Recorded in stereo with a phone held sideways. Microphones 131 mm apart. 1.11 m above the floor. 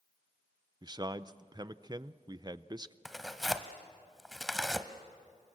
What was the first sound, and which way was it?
A man speaking, 30° right (ahead or behind).